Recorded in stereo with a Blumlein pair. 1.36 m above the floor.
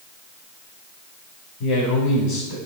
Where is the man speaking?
50° left, 4.5 m.